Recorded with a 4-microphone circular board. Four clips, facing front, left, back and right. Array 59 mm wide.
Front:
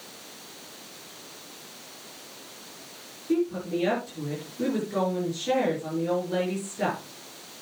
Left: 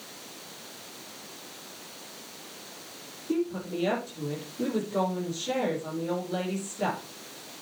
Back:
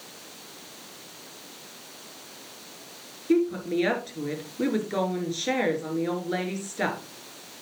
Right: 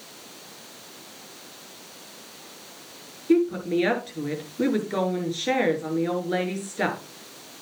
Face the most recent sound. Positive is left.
turn(degrees=-115)